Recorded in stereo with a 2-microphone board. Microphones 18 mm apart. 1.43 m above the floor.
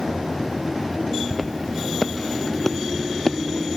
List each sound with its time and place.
1.3 s footsteps: 5° right (ahead or behind); by 3.4 s 20° left (ahead or behind)